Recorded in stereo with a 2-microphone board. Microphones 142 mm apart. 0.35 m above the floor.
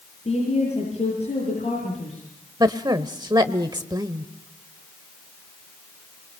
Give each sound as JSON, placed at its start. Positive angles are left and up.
{"t": 0.2, "sound": "a woman speaking", "side_deg": 50, "distance_m": 9.0}
{"t": 2.6, "sound": "a woman speaking", "side_deg": -30, "distance_m": 1.0}